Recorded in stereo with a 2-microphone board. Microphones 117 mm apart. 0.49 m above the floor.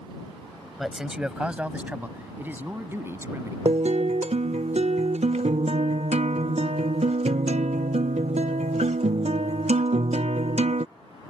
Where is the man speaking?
Centre (ahead or behind); by 3.5 s 20° right (ahead or behind).